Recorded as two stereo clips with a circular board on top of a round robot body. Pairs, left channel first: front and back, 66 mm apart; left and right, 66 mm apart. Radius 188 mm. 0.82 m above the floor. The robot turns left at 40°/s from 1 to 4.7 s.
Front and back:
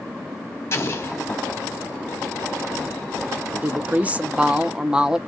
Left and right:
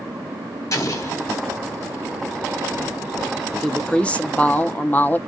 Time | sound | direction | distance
0.7 | an explosion | 50° left | 1.3 m
3.6 | a woman speaking | 160° left | 0.7 m